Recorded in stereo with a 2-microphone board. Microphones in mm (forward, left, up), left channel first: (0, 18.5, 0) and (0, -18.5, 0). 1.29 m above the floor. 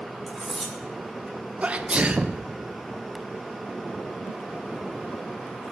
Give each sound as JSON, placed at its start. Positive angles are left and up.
{"t": 0.3, "sound": "cutlery clinking", "side_deg": 0, "distance_m": 2.0}
{"t": 1.6, "sound": "a sneeze", "side_deg": -30, "distance_m": 0.9}